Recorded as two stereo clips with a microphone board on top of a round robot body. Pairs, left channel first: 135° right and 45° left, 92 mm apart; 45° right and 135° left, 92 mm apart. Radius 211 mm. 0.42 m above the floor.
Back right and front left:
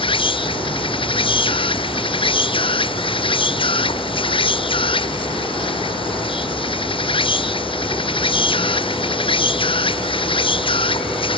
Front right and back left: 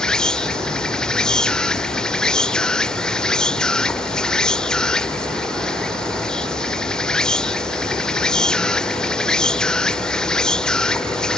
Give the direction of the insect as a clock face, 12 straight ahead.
4 o'clock.